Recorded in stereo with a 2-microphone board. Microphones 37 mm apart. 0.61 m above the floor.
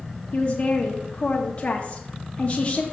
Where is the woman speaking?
30° left (ahead or behind), 0.7 m.